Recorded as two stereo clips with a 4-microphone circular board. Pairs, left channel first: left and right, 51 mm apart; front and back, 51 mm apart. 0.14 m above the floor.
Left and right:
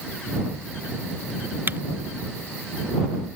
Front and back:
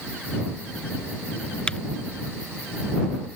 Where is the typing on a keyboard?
65° right.